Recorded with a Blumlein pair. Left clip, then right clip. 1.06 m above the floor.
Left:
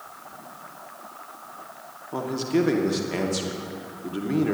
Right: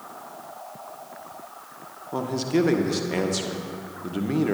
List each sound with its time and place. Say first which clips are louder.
2.1 s a man speaking: even; 5° right, 1.3 m